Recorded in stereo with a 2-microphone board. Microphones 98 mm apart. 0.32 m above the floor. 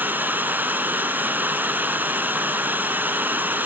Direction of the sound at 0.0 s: 20° right (ahead or behind).